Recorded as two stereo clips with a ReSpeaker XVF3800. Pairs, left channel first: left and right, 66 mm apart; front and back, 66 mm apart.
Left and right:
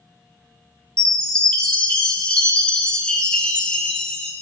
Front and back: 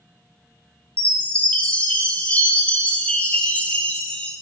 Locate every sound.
1.0 s a chime: 35° left, 1.1 m